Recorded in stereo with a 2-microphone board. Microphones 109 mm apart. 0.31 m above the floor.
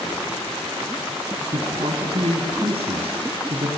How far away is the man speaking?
About 2.5 m.